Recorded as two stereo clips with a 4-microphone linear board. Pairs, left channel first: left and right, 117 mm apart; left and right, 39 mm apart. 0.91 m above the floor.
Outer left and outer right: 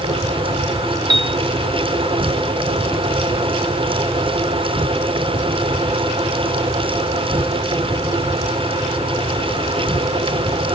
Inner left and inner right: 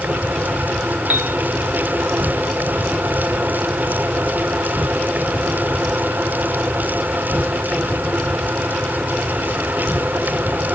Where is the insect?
55° right (ahead or behind).